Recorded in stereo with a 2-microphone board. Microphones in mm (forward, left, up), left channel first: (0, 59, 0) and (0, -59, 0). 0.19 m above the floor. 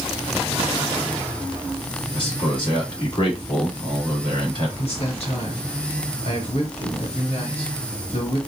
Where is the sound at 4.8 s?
60° left (ahead or behind), 3 m.